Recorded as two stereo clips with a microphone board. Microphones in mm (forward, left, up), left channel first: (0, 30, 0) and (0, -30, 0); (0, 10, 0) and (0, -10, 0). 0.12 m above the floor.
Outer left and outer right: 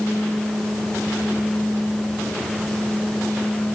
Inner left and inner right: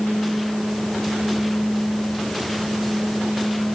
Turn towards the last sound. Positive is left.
No sound to turn to.